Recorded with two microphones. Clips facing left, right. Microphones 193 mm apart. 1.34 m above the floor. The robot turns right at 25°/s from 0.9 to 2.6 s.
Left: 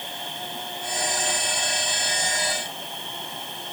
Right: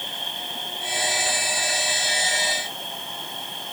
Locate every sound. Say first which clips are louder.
0.0 s an insect: left 1 dB; 135° left, 4 m; by 3.7 s straight behind, 4 m